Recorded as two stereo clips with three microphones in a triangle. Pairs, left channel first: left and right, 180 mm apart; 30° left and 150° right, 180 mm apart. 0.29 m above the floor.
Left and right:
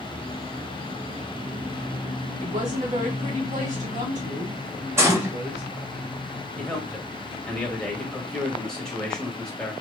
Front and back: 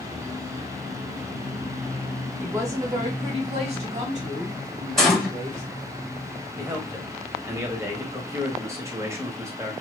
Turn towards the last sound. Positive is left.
turn(degrees=170)